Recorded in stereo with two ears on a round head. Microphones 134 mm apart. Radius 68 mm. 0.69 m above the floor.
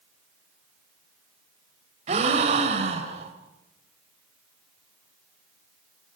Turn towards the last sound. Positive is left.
turn(degrees=-45)  # may be behind; listen again after turning